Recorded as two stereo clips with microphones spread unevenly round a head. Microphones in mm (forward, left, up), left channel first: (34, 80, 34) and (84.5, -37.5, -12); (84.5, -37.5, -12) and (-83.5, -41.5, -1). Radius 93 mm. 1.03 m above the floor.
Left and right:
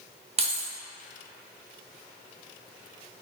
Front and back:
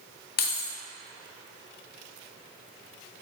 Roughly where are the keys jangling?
Ahead right.